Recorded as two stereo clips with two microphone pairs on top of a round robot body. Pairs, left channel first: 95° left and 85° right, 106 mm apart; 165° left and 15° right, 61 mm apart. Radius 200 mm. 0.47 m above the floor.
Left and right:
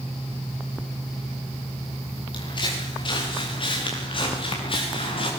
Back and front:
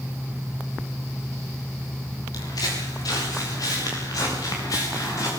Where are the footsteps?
140° left, 6 m; by 5.3 s 130° left, 8.5 m.